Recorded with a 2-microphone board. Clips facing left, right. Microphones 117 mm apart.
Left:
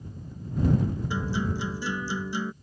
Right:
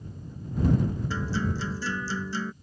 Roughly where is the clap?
No clap in this recording.